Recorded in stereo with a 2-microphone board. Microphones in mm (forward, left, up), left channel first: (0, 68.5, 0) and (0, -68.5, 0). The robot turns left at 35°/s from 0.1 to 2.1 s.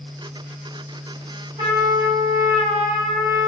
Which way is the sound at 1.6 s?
35° right (ahead or behind).